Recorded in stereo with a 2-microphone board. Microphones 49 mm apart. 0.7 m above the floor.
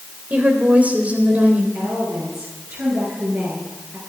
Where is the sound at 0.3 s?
30° right (ahead or behind), 3.5 m.